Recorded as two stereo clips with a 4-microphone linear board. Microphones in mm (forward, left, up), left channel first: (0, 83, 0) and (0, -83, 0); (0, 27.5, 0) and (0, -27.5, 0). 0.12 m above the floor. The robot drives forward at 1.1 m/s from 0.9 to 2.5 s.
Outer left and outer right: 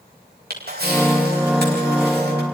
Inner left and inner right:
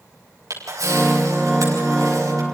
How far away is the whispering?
No whispering in this recording.